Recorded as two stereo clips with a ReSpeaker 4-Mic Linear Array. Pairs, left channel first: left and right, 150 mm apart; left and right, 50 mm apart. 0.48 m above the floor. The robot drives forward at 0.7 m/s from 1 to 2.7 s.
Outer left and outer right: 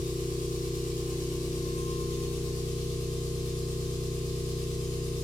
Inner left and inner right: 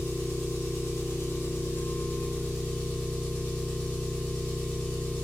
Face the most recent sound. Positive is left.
turn(degrees=30)  # may be behind; listen again after turning